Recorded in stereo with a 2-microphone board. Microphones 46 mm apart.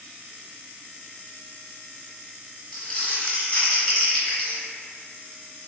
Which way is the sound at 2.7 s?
25° left (ahead or behind).